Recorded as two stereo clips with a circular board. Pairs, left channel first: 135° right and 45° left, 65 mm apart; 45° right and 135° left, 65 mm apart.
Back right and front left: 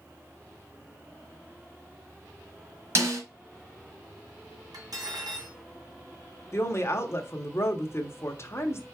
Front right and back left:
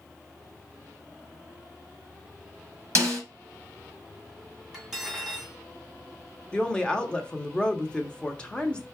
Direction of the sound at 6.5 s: 115° right.